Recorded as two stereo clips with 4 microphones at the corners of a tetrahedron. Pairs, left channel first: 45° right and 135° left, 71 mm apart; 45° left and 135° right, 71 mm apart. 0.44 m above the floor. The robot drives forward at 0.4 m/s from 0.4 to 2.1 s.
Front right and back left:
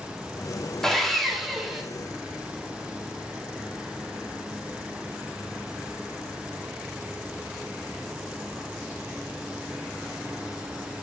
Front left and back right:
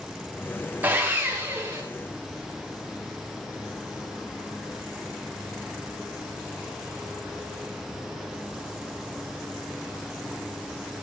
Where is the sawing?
120° right, 1.4 m; by 1.8 s 145° right, 1.6 m.